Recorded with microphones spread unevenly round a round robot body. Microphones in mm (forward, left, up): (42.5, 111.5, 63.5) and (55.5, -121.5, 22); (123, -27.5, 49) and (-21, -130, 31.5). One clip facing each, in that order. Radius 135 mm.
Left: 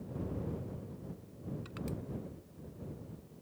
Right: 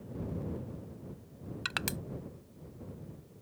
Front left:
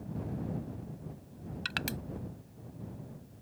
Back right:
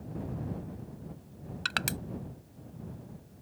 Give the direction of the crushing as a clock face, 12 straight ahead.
3 o'clock.